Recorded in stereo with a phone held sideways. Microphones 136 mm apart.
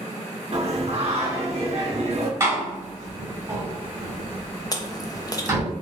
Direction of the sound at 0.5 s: 50° right (ahead or behind).